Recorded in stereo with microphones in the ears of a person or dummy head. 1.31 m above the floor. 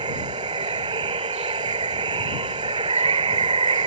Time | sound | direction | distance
0.0 | running water | 25° right (ahead or behind) | ?